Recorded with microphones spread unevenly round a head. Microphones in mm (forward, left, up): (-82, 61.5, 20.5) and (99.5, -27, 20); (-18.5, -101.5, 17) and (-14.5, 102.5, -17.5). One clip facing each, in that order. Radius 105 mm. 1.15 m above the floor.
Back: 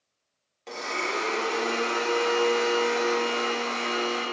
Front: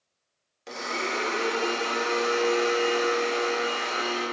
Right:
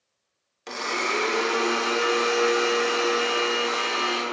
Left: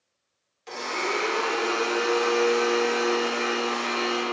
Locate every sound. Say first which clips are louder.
0.7 s a blender: even, even; 105° right, 1.1 m